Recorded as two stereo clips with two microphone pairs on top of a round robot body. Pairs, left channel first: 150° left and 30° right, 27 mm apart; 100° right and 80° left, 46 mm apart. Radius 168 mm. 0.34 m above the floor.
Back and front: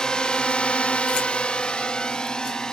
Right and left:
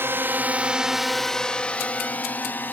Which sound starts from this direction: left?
A drone, at 0.0 s.